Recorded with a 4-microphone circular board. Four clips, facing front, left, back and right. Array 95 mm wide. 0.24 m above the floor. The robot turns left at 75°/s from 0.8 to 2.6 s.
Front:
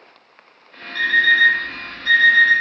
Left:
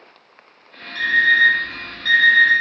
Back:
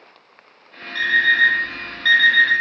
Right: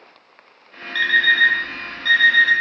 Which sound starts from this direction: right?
An alarm clock, at 0.9 s.